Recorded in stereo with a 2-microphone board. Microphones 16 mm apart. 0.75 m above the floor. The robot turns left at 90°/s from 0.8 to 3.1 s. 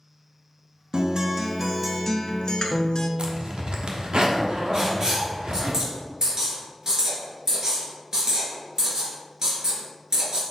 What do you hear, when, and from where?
0.9 s a guitar: 100° right, 0.9 m; by 3.1 s 65° left, 0.9 m
3.2 s a zipper: 70° right (ahead or behind), 1.0 m
4.7 s writing: 45° right (ahead or behind), 2.5 m